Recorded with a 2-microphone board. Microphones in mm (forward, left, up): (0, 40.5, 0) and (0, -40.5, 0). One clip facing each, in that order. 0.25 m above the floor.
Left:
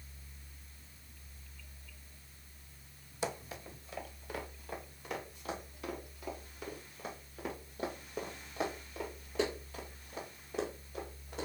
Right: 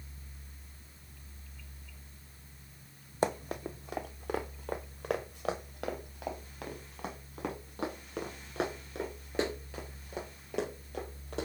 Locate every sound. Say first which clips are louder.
3.2 s running footsteps: right 7 dB; 50° right (ahead or behind), 0.6 m; by 11.5 s 90° right, 6 m